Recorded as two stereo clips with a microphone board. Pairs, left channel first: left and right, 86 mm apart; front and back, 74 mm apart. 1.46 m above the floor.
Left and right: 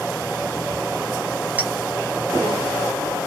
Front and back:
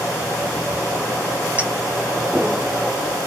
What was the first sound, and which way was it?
A clink, 135° right.